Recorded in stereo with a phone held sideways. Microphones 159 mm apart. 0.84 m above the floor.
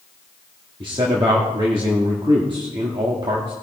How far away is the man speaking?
About 1.6 m.